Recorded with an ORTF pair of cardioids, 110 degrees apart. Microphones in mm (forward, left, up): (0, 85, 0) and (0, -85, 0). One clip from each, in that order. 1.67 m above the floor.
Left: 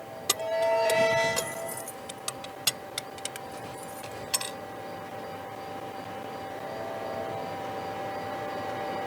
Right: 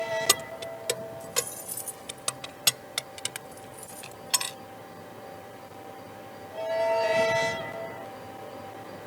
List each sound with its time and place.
0.3 s keys jangling: 30° right; by 4.6 s 25° right